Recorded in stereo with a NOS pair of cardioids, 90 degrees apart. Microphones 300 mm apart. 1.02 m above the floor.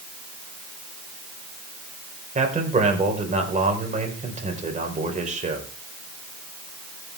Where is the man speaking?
25° right, 4.5 m.